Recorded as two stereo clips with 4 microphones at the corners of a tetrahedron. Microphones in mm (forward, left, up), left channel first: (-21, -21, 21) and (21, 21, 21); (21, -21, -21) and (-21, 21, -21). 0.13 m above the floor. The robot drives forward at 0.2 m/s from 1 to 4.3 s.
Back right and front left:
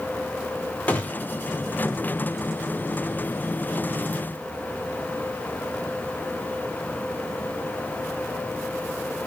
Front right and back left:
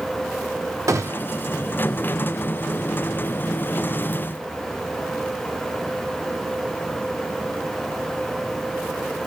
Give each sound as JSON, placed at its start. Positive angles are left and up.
{"t": 0.9, "sound": "a gunshot", "azimuth_deg": 160, "distance_m": 0.8}